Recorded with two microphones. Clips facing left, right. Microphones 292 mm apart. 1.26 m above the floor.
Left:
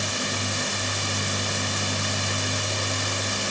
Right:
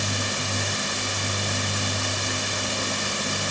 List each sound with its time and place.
Only background noise.